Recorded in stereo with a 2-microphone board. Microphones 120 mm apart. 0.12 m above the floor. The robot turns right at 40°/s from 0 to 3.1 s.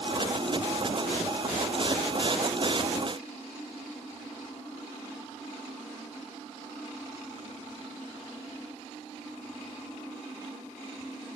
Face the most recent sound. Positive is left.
No sound to turn to.